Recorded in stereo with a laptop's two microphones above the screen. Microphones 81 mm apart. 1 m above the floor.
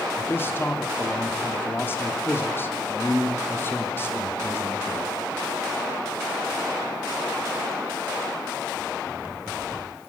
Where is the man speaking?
30° left (ahead or behind), 1.8 m.